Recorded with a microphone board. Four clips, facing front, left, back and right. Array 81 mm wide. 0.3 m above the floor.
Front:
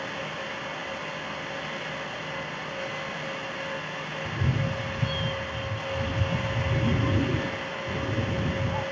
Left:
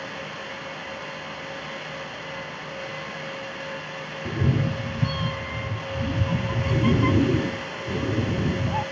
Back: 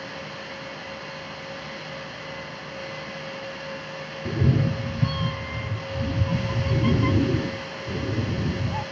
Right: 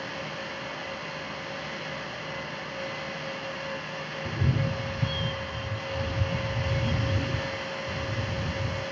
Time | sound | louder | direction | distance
4.2 | a cat meowing | left 5 dB, back 7 dB | 150° left | ?